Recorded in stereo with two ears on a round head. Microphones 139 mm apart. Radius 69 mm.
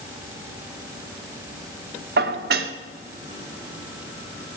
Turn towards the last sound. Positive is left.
turn(degrees=-70)  # may be behind; listen again after turning